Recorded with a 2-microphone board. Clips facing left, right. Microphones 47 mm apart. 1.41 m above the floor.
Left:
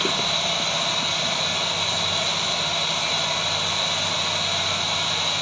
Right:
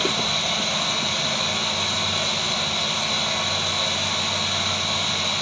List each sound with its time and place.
0.0 s running water: 15° left (ahead or behind), 0.9 m